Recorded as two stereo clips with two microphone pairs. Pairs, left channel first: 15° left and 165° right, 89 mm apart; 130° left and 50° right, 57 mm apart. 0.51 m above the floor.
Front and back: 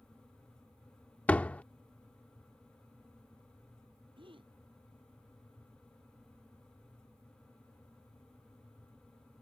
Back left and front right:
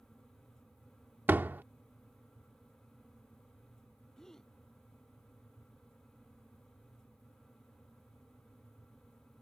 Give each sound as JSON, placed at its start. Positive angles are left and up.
{"t": 1.3, "sound": "a door slam", "azimuth_deg": -50}
{"t": 4.2, "sound": "a gasp", "azimuth_deg": -150}